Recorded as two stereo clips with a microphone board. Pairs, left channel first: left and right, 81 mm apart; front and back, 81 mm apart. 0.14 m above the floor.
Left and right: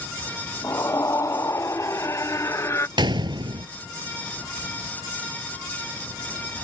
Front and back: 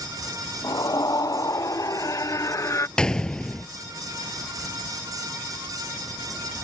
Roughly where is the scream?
Ahead left.